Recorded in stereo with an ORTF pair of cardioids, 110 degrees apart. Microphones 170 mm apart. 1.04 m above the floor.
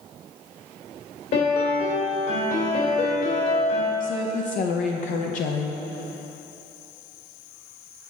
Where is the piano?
70° left, 2.5 m.